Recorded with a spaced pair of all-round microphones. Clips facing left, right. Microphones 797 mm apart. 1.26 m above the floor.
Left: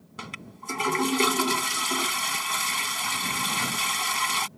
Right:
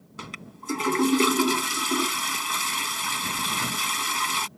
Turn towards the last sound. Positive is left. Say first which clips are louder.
# right 1 dB
turn(degrees=25)  # may be behind; listen again after turning